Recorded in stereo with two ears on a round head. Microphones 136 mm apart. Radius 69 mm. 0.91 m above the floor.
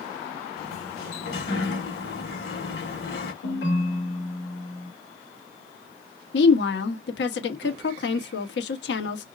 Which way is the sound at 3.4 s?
85° left.